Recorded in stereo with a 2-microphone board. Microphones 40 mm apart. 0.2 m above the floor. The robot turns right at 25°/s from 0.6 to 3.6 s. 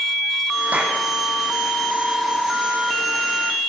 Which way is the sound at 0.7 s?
45° right (ahead or behind).